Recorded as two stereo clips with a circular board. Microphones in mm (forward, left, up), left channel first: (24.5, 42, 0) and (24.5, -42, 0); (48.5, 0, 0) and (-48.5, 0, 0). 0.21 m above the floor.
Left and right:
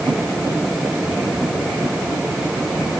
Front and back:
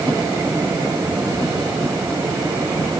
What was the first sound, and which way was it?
Only background noise.